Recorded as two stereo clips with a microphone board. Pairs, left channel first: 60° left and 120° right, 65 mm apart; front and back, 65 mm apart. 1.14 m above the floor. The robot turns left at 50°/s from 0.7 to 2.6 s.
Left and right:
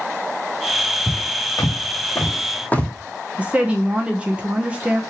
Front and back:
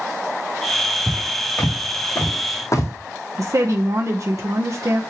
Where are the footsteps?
105° left, 4 m; by 2.9 s 5° right, 1.6 m.